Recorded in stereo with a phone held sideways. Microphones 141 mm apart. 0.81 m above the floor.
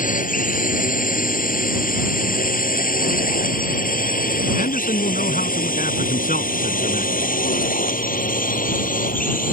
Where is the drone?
70° left (ahead or behind); by 9.5 s 75° left (ahead or behind).